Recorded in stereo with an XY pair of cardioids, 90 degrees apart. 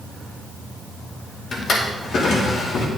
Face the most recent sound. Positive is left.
turn(degrees=60)